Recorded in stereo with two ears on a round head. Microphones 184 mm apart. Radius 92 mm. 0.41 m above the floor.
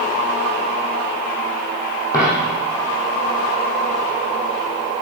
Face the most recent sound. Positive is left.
turn(degrees=15)  # may be behind; listen again after turning